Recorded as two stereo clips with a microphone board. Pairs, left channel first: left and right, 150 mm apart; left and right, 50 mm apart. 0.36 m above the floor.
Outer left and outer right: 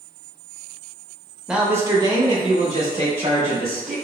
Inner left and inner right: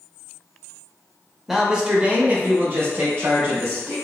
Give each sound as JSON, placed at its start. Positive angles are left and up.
{"t": 1.5, "sound": "a man speaking", "side_deg": -5, "distance_m": 0.9}